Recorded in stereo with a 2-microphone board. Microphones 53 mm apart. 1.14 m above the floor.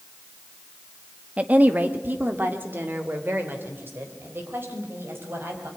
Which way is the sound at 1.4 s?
30° right (ahead or behind).